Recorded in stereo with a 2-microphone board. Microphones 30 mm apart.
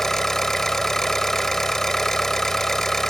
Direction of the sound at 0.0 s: 15° left (ahead or behind).